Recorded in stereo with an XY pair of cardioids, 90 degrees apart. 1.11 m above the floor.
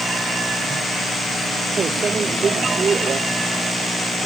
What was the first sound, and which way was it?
A microwave, 50° right.